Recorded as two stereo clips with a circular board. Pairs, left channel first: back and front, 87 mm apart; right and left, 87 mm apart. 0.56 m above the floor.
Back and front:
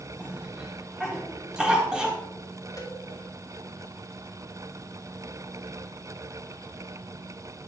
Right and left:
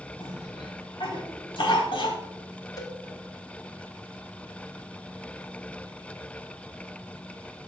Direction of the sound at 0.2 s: 80° right.